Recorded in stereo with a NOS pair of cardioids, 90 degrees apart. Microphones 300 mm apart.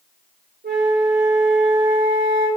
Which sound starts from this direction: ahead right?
A flute, at 0.6 s.